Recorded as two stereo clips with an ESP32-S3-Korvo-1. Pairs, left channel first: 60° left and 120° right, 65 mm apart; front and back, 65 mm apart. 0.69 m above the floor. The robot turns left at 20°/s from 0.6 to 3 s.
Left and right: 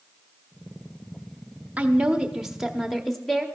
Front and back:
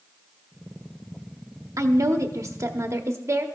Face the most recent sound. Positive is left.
turn(degrees=145)